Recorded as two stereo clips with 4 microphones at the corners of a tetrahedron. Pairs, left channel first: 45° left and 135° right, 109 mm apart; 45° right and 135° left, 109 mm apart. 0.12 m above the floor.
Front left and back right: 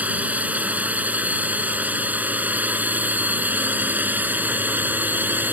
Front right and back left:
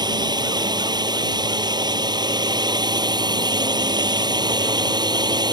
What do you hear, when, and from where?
0.0 s a drone: 155° left; by 5.5 s 160° left